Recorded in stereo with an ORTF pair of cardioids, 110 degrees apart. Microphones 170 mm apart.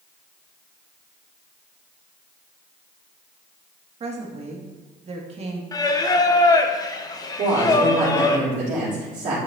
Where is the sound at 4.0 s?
40° right, 1.5 m.